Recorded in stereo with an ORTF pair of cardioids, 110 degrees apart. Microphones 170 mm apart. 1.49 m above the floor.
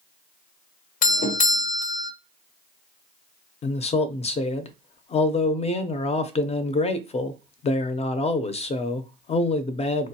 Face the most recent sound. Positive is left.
turn(degrees=40)